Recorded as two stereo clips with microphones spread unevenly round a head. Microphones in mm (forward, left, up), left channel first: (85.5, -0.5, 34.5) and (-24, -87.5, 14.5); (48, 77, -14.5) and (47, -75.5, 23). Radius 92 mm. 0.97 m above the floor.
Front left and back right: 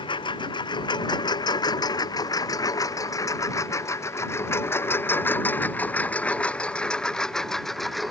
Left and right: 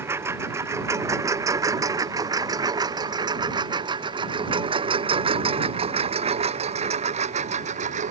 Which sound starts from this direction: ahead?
A lawn mower, at 0.0 s.